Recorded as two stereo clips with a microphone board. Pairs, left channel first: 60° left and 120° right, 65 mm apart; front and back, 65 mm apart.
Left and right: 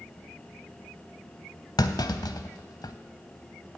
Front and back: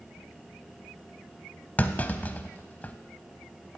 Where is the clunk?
65° left, 0.6 m.